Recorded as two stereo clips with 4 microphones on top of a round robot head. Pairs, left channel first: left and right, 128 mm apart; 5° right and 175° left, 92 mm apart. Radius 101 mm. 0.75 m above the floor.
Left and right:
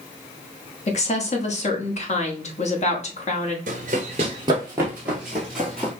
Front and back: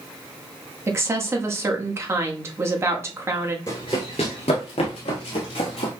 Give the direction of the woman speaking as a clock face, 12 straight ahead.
8 o'clock.